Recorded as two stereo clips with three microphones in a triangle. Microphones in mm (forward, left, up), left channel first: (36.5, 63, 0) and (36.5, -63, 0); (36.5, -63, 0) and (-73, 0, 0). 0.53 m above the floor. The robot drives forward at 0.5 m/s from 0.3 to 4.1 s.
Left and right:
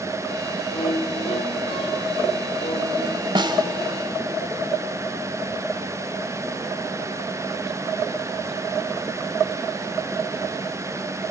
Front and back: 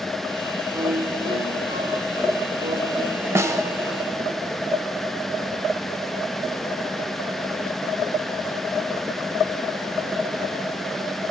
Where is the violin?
95° left, 1.6 m; by 3.2 s 135° left, 2 m.